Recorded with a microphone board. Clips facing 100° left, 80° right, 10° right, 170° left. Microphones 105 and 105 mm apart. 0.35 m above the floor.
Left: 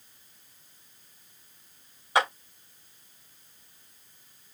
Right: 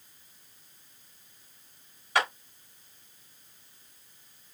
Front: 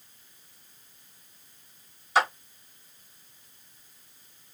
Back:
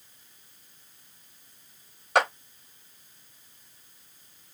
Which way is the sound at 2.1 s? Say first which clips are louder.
Left 3 dB, back 1 dB; 165° left.